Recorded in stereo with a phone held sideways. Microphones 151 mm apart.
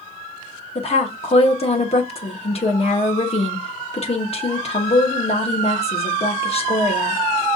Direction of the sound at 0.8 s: 45° left (ahead or behind).